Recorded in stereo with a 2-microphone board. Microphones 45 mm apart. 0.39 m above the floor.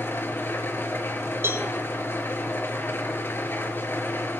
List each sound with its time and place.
0.0 s an engine running: 55° left (ahead or behind), 3.5 m
1.4 s a cowbell: 65° right (ahead or behind), 6 m